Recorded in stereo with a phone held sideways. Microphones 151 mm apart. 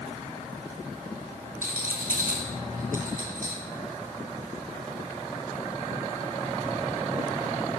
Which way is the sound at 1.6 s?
70° right (ahead or behind).